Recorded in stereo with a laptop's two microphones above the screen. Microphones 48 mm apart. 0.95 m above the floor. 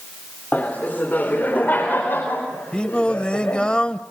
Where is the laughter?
35° left (ahead or behind), 3.5 m; by 3.7 s 45° left (ahead or behind), 5.5 m.